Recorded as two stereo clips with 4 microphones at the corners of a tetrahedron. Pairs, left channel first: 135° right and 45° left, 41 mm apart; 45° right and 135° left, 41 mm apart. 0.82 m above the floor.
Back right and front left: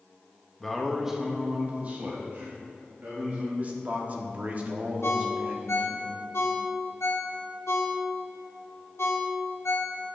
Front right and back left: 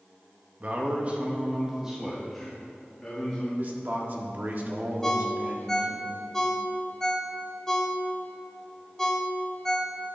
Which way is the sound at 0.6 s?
145° left.